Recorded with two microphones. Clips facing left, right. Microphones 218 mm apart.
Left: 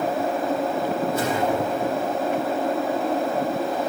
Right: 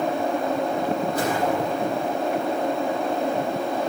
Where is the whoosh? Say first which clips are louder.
Left 1 dB; 25° left (ahead or behind), 7.5 m.